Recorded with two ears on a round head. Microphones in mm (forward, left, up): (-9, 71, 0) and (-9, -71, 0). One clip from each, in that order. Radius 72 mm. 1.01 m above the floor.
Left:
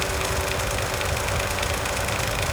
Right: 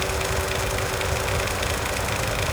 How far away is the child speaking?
I don't hear a child speaking.